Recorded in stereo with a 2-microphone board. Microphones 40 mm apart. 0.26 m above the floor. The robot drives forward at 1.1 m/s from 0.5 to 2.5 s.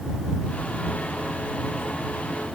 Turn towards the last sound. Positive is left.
No sound to turn to.